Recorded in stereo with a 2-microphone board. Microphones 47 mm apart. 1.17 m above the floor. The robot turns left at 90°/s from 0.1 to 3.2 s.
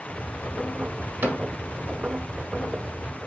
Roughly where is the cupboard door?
Right.